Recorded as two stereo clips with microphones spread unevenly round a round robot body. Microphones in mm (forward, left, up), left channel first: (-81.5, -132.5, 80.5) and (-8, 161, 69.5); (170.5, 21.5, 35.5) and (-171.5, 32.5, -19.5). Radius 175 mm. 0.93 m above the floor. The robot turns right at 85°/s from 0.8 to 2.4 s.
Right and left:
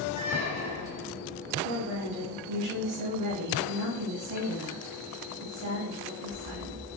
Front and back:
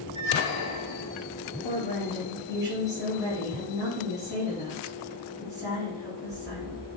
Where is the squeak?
40° left, 1.2 m; by 1.1 s 70° left, 1.2 m.